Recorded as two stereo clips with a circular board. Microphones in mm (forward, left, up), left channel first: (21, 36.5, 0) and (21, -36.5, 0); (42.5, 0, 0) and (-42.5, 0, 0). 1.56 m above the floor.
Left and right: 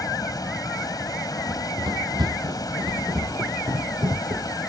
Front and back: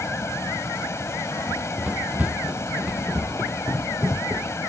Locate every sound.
0.0 s running water: 55° left
1.5 s running footsteps: 105° right; by 4.5 s 115° right